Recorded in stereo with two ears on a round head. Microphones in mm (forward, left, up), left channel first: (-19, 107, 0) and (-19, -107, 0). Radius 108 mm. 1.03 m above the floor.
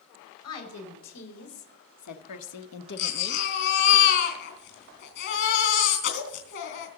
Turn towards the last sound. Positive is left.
turn(degrees=50)  # may be behind; listen again after turning